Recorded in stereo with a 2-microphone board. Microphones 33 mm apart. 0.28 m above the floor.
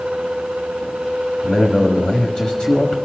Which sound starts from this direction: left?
A man speaking, at 1.4 s.